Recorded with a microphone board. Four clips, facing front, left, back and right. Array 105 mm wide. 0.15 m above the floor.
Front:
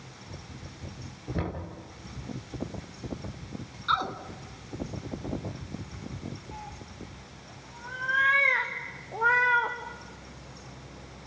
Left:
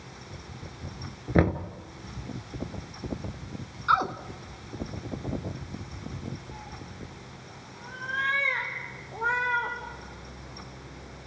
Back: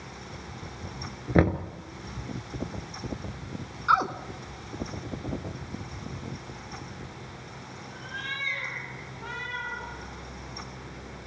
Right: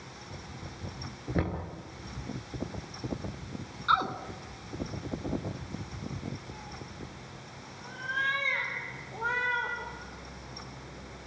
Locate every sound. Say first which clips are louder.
1.4 s knocking: left 9 dB, back 12 dB; 145° left, 1.4 m
3.9 s a woman speaking: left 3 dB, back 5 dB; 155° left, 1.1 m
6.5 s a cat meowing: left 1 dB, back 1 dB; 15° left, 3.5 m